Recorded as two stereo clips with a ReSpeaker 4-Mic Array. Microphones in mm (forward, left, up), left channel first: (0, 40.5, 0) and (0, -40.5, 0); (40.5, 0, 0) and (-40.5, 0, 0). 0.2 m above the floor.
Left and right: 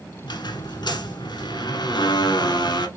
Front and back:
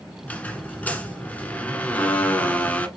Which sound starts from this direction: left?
A squeak, at 0.2 s.